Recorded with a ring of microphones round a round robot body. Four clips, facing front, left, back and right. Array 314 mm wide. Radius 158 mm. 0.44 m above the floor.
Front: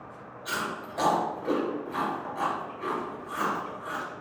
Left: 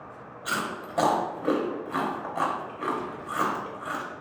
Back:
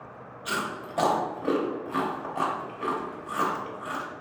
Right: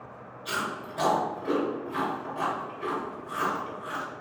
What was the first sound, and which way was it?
Chewing, 130° left.